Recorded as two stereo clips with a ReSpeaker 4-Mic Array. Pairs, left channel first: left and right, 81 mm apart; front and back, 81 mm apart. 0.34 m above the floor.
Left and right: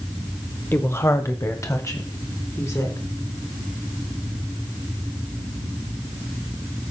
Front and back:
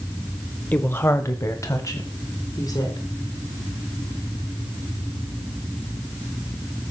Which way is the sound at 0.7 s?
55° left.